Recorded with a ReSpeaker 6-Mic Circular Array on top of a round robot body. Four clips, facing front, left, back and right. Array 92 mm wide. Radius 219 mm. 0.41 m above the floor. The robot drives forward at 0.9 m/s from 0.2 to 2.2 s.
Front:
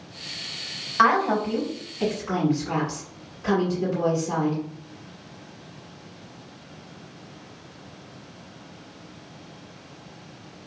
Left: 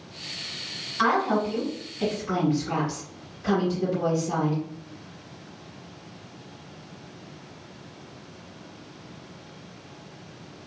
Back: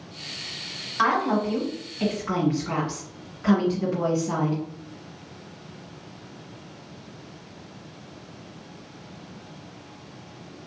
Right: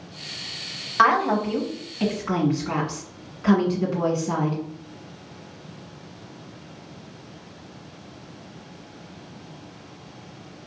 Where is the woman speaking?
60° right, 1.6 m; by 4.6 s 115° right, 1.6 m.